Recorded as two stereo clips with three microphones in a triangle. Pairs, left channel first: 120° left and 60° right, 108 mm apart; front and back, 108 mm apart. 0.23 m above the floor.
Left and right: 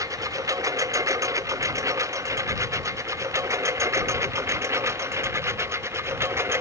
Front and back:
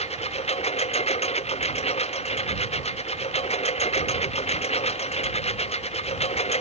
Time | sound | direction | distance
0.0 | a lawn mower | straight ahead | ?